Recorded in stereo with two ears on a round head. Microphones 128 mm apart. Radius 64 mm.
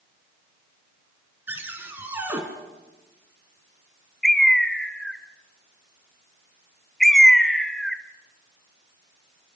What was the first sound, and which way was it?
A cupboard door, 15° right (ahead or behind).